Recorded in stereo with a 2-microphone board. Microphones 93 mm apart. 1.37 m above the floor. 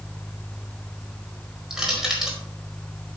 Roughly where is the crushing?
Centre.